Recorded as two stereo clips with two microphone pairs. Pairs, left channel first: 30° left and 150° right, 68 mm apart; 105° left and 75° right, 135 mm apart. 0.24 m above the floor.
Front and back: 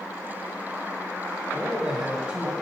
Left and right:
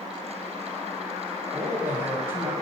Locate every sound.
1.5 s a man speaking: 105° right, 1.4 m